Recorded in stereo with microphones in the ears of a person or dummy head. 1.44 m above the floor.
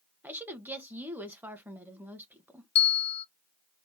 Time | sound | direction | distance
0.2 | a woman speaking | 10° right (ahead or behind) | 1.0 m
2.8 | a bell | 35° left (ahead or behind) | 0.7 m